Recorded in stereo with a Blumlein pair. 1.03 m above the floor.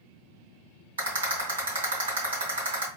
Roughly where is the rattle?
Right.